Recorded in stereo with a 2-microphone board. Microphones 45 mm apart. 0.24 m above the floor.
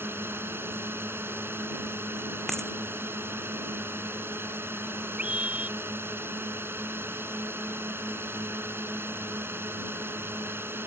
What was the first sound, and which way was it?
A drone, 60° right (ahead or behind).